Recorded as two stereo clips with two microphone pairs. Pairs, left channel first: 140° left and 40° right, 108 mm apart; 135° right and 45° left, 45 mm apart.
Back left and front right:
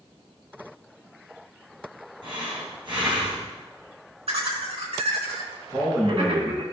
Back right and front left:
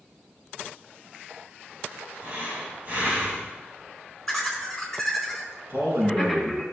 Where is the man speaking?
20° left, 5 m.